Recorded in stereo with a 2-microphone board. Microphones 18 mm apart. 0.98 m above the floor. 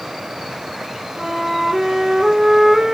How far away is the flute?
About 0.9 m.